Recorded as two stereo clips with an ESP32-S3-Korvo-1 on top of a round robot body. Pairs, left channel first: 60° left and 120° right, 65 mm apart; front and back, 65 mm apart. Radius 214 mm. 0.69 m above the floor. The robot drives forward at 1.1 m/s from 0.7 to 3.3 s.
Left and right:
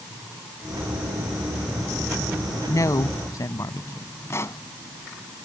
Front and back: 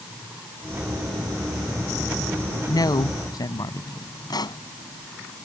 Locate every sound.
2.7 s a woman speaking: 20° left
4.3 s a pop: 10° left